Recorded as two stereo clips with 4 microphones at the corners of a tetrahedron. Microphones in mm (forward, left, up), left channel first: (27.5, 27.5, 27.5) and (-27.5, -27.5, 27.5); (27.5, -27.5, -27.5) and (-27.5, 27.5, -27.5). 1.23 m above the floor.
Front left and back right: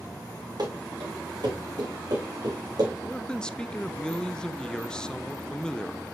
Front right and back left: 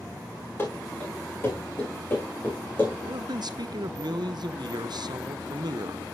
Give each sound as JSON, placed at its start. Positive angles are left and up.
{"t": 0.6, "sound": "running footsteps", "azimuth_deg": -105, "distance_m": 6.5}
{"t": 3.0, "sound": "a man speaking", "azimuth_deg": 125, "distance_m": 0.7}